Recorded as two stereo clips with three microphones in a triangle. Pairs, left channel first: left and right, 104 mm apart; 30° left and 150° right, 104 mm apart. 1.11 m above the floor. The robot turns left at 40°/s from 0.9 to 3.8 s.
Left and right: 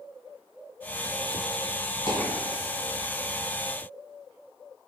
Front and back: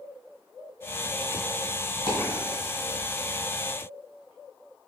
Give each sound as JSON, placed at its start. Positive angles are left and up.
{"t": 2.1, "sound": "a dropped coin", "azimuth_deg": 50, "distance_m": 1.6}